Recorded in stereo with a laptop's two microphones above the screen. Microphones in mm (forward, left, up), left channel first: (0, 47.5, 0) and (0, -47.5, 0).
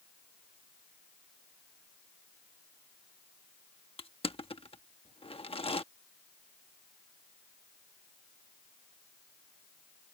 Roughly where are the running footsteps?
I don't hear running footsteps.